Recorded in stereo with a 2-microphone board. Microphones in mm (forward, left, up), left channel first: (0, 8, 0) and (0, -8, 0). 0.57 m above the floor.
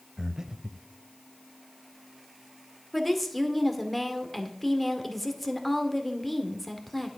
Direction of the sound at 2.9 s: 10° left (ahead or behind).